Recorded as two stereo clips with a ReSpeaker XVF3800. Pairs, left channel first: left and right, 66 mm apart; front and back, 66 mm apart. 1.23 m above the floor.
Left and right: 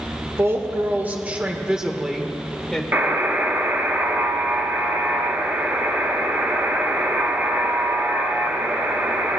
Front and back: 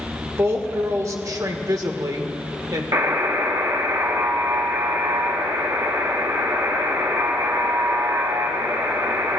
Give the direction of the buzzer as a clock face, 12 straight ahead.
5 o'clock.